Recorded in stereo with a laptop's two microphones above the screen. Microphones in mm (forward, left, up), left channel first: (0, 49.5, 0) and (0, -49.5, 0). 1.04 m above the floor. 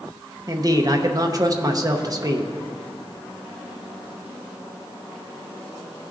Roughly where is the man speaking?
Right.